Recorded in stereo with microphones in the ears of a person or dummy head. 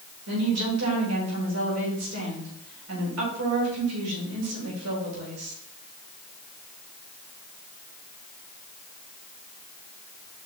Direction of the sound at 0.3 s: 85° right.